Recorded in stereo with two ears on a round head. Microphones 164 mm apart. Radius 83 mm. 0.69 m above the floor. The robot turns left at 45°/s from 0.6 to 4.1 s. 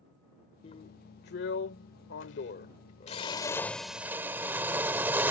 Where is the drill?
145° left; by 5.3 s 10° right.